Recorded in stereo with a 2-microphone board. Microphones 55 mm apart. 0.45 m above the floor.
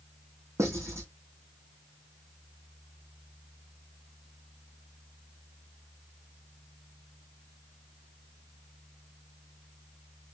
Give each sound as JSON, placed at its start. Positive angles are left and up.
{"t": 0.6, "sound": "writing", "side_deg": -60, "distance_m": 3.5}